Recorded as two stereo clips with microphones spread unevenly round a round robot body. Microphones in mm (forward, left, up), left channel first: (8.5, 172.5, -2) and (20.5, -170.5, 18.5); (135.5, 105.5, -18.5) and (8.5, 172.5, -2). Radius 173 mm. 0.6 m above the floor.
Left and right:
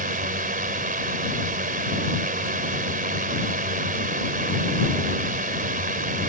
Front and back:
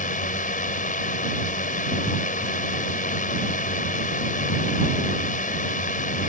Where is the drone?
25° right.